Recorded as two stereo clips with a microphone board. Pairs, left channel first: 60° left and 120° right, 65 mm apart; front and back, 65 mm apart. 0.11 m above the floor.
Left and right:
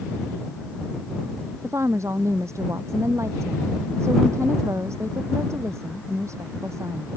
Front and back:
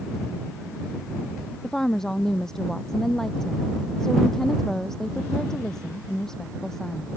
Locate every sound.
1.6 s a woman speaking: 80° right